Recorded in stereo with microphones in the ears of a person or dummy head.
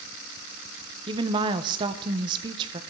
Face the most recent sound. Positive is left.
turn(degrees=-25)  # may be behind; listen again after turning